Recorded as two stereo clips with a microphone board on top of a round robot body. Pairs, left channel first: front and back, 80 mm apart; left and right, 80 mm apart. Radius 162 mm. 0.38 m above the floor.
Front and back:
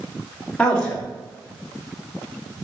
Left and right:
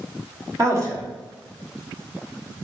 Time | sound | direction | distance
0.6 | a man speaking | 70° right | 1.5 m